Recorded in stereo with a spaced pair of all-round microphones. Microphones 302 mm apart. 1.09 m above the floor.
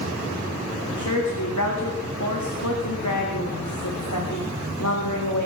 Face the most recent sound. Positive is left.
turn(degrees=70)  # may be behind; listen again after turning